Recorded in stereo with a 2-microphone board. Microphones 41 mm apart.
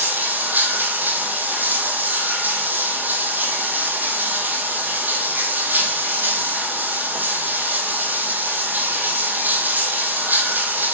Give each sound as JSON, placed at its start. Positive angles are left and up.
{"t": 0.0, "sound": "running water", "side_deg": -45, "distance_m": 1.4}